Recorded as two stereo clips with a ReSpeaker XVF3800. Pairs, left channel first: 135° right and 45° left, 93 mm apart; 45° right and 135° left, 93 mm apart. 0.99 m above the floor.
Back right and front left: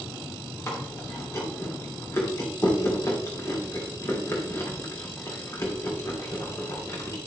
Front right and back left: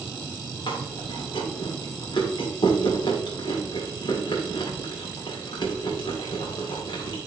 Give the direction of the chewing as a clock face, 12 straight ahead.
3 o'clock.